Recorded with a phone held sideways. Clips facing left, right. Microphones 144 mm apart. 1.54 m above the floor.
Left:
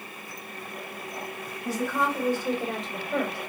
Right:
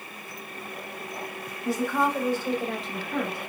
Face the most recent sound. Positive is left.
turn(degrees=35)  # may be behind; listen again after turning